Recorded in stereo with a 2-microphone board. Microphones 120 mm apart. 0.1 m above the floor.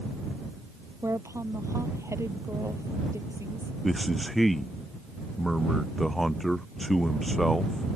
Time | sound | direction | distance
1.0 | a woman speaking | 25° right (ahead or behind) | ?
3.8 | a man speaking | centre (ahead or behind) | ?